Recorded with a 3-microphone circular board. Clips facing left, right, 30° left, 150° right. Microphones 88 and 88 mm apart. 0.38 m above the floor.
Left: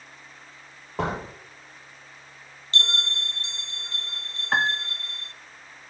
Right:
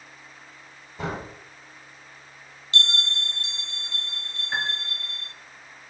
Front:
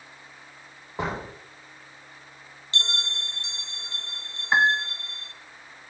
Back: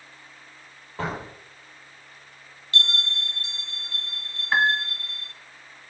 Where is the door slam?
100° left, 7 m.